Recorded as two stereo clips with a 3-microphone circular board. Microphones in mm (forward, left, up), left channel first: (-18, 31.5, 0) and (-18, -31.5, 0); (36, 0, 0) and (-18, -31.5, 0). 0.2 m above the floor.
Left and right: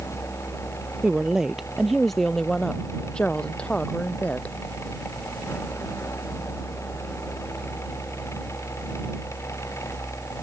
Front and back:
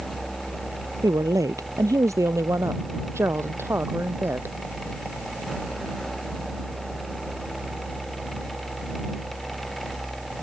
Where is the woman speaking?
165° right; by 4.5 s 155° left.